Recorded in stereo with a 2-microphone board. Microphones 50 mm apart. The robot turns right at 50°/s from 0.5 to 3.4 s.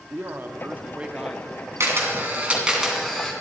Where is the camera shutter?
60° right, 2.5 m; by 3.3 s 15° left, 2.5 m.